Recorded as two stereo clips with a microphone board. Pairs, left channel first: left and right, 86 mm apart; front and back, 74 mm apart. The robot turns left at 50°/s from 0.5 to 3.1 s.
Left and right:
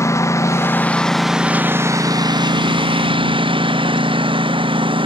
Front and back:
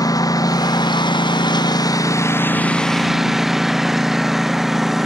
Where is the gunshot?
I don't hear a gunshot.